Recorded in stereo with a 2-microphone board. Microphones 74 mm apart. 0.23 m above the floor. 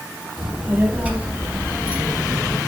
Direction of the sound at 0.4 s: 25° right (ahead or behind).